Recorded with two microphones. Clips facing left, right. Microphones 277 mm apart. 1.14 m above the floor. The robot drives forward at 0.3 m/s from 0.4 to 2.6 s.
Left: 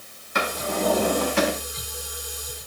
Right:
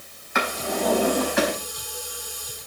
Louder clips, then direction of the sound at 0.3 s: Even; 40° left (ahead or behind).